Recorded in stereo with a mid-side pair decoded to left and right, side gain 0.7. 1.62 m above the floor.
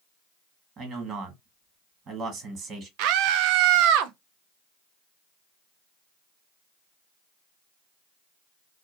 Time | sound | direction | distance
0.8 | a man speaking | 40° right | 1.6 m
3.0 | a scream | 70° right | 0.5 m